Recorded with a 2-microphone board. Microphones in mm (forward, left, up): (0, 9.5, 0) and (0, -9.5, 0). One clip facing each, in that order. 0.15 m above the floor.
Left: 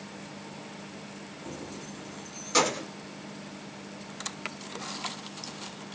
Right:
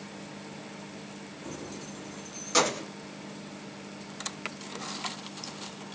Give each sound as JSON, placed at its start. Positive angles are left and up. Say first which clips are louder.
{"t": 1.4, "sound": "keys jangling", "louder": "even", "side_deg": -45, "distance_m": 1.3}